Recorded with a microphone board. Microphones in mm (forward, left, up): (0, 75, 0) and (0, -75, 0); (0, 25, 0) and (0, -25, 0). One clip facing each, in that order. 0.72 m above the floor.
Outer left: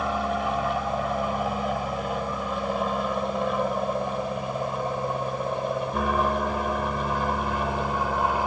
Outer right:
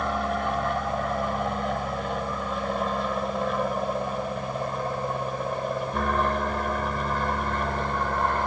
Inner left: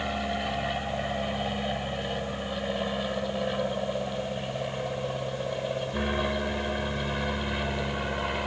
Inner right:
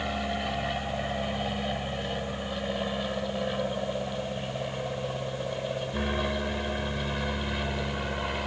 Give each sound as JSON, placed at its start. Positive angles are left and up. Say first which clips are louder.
{"t": 0.0, "sound": "an aircraft", "louder": "outer left 1 dB, inner left 1 dB", "side_deg": 5}